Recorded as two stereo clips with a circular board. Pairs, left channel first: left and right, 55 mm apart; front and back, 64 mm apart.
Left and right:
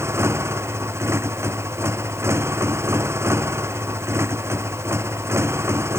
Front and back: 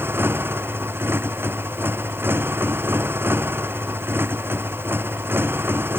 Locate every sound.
0.0 s a motorcycle: 125° right